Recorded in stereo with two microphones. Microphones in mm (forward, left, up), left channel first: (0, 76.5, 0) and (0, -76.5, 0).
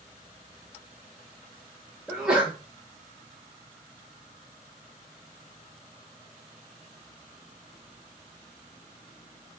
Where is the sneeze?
5° right (ahead or behind), 0.7 m.